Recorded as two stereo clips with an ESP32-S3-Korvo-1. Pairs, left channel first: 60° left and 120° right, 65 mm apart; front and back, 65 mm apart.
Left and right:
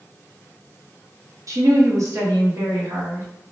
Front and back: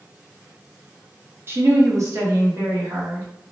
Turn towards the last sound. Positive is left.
turn(degrees=-160)